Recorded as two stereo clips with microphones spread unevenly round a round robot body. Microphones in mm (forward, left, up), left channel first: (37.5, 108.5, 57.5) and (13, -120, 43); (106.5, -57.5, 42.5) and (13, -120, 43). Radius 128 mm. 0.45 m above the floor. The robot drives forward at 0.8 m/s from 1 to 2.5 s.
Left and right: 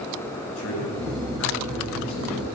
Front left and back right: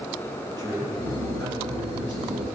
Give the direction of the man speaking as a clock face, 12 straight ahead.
8 o'clock.